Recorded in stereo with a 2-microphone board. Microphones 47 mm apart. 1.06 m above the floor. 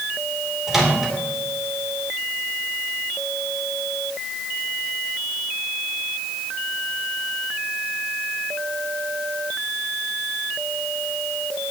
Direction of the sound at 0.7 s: 10° right (ahead or behind).